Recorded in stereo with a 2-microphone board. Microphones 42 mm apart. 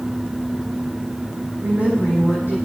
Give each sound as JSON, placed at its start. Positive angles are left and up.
{"t": 1.6, "sound": "a woman speaking", "side_deg": -65, "distance_m": 7.0}